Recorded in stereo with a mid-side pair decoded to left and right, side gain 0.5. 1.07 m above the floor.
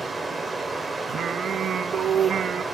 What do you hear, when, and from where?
0.0 s running water: 10° right, 2 m
1.1 s singing: 50° right, 0.5 m